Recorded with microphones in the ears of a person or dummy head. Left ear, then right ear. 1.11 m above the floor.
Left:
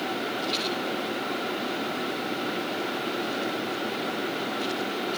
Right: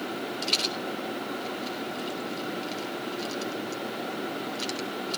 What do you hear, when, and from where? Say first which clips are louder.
0.4 s a rattle: right 4 dB; 75° right (ahead or behind), 3.5 m